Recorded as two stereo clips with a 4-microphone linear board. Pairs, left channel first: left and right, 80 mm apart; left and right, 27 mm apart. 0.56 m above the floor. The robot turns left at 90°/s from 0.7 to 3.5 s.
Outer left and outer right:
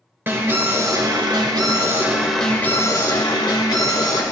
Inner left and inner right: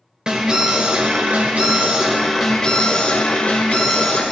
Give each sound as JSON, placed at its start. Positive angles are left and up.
{"t": 0.3, "sound": "an alarm", "azimuth_deg": -30, "distance_m": 2.0}